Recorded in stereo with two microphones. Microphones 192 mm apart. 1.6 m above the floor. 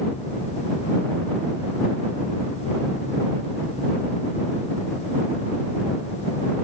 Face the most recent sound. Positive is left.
No sound to turn to.